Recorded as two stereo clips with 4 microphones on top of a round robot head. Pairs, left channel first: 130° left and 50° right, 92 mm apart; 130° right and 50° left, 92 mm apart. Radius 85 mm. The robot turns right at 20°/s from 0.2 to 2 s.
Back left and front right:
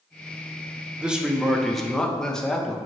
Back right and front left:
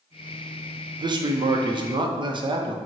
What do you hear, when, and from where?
1.0 s a man speaking: 30° left, 0.6 m; by 2.8 s 50° left, 0.6 m